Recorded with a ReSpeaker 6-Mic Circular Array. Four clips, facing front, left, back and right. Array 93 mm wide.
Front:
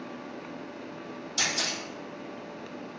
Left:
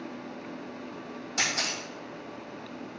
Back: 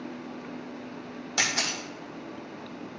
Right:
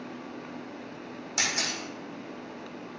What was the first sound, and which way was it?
A camera shutter, 170° right.